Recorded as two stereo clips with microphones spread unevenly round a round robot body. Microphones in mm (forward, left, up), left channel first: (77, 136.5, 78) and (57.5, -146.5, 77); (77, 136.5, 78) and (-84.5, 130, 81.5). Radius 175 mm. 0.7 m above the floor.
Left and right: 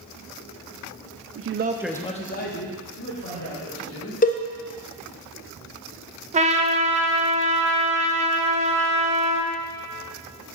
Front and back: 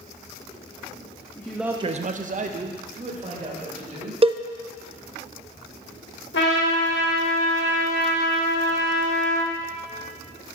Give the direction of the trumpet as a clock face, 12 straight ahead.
1 o'clock.